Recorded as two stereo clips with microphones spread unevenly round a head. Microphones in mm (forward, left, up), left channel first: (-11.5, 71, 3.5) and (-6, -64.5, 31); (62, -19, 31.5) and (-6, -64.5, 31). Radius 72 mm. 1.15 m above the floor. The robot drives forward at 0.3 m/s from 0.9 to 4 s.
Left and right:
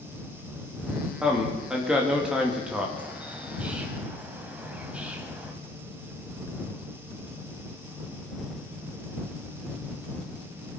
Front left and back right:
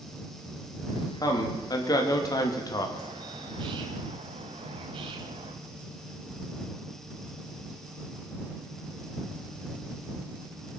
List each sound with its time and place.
1.2 s a man speaking: straight ahead, 2.5 m
3.0 s a bird: 155° right, 1.4 m; by 5.5 s 160° right, 1.6 m